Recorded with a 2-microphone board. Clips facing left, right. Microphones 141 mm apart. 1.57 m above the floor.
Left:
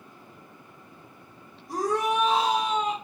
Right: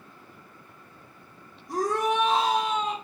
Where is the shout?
Centre (ahead or behind), 1.1 m.